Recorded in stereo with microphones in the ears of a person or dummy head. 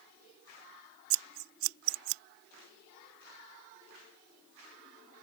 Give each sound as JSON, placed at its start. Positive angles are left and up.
{"t": 1.1, "sound": "scissors", "side_deg": -75}